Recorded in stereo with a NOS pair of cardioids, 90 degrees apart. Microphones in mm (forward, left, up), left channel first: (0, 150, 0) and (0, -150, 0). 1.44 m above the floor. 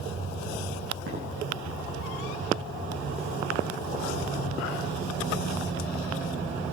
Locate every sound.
1.1 s footsteps: 45° right, 4.5 m